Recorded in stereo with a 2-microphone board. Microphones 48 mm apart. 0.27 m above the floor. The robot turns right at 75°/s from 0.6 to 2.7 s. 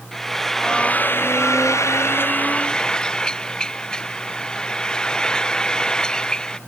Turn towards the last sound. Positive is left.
turn(degrees=165)